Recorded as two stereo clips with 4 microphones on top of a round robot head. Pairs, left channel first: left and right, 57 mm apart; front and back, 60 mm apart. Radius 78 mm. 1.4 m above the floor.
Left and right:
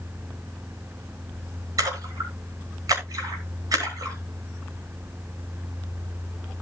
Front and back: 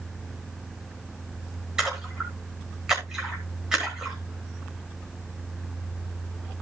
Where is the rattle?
No rattle in this recording.